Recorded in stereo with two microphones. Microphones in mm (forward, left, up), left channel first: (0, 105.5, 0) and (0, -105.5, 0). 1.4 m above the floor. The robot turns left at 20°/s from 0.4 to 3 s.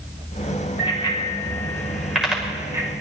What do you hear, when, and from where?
0.8 s a bicycle bell: 25° left (ahead or behind), 4.5 m; by 2.9 s 15° right (ahead or behind), 4.5 m